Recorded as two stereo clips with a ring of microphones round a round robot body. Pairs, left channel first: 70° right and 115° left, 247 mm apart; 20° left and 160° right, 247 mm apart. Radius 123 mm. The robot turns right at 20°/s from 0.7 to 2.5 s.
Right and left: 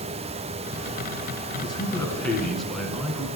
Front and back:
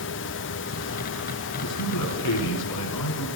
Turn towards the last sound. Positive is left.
turn(degrees=20)